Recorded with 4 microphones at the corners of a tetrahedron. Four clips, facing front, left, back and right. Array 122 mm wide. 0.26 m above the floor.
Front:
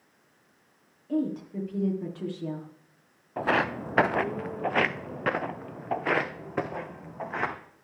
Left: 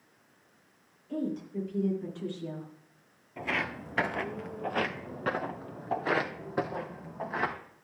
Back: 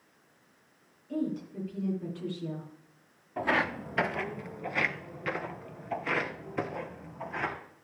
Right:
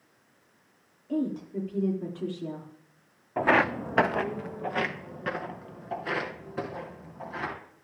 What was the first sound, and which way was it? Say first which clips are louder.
A woman speaking: right 4 dB, front 4 dB; 30° right.